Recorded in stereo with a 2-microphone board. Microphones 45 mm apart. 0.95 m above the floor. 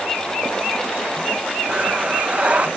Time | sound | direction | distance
1.7 | breathing | 25° right (ahead or behind) | 0.5 m